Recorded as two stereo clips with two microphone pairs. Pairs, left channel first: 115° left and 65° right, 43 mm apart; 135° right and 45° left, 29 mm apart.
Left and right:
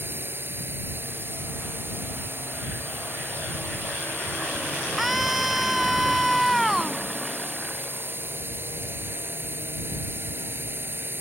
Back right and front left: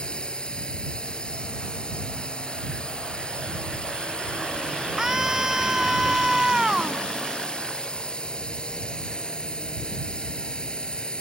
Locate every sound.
0.0 s a drone: 85° right
5.0 s a scream: 20° left